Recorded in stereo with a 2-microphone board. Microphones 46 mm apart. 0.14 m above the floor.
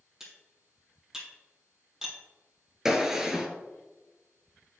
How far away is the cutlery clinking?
About 2.5 m.